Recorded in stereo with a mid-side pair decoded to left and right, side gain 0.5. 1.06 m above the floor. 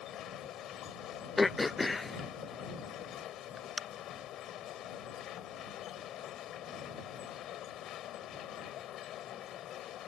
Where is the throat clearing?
20° left.